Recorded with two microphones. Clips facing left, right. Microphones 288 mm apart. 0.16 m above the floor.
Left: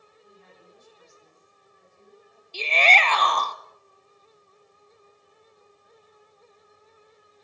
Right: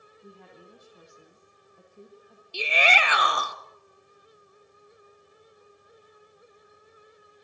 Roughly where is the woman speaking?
Right.